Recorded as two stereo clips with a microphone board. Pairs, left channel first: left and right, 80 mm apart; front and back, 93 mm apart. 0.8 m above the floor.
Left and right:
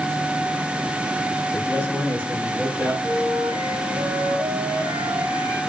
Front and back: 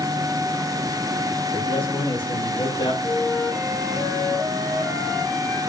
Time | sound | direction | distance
1.5 | a man speaking | 25° right | 8.5 m
3.0 | a flute | 80° right | 5 m